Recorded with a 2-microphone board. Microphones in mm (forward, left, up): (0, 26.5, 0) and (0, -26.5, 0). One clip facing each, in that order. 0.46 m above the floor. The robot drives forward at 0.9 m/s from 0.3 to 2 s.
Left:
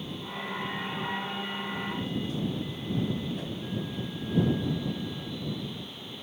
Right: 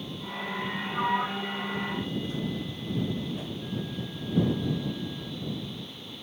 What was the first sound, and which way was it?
A sliding door, 65° right (ahead or behind).